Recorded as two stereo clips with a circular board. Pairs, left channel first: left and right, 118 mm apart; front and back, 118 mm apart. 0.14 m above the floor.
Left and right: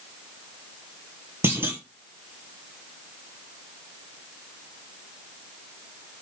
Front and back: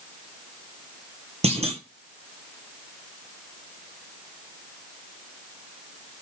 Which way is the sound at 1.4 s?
160° right.